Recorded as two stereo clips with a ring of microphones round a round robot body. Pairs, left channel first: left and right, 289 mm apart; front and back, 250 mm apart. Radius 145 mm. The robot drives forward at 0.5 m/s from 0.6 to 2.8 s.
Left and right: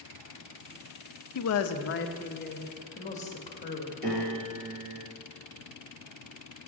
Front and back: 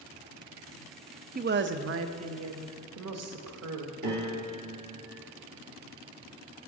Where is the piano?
150° right, 3 m.